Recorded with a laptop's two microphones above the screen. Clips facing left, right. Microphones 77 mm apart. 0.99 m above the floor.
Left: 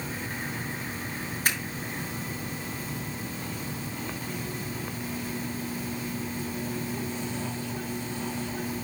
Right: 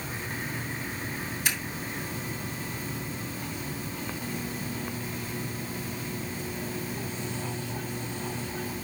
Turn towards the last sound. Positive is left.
turn(degrees=45)  # may be behind; listen again after turning